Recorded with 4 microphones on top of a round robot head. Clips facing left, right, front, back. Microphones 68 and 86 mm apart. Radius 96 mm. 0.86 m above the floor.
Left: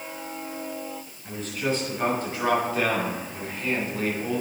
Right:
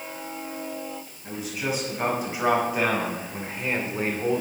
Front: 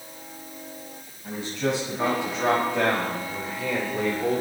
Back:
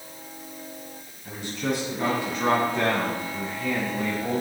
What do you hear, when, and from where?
1.2 s a man speaking: 10° right, 7 m; by 4.4 s 35° right, 2.5 m